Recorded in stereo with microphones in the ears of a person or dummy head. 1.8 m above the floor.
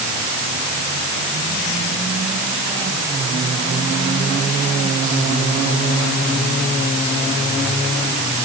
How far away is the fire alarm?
I don't hear a fire alarm.